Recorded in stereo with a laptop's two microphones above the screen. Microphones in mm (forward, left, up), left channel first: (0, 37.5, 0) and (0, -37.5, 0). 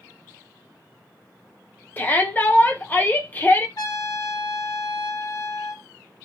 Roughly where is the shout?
Left.